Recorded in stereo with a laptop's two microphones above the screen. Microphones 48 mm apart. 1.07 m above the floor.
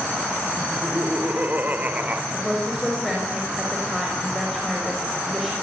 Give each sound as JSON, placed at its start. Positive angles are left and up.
{"t": 0.6, "sound": "laughter", "side_deg": -45, "distance_m": 6.0}
{"t": 2.3, "sound": "a woman speaking", "side_deg": 0, "distance_m": 6.0}